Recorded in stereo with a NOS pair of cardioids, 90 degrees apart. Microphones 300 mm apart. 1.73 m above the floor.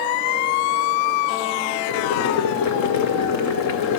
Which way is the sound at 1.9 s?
65° left.